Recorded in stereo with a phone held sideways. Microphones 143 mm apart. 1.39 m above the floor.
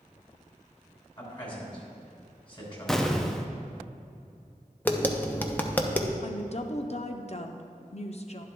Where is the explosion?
5° left (ahead or behind), 0.5 m.